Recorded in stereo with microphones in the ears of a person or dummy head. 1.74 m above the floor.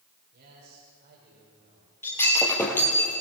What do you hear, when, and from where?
0.3 s a man speaking: 55° right (ahead or behind), 6.5 m
2.0 s breaking glass: 15° left (ahead or behind), 5 m